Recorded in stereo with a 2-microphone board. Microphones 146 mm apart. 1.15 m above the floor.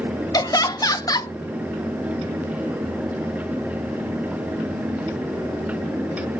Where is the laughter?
25° left (ahead or behind), 0.7 m.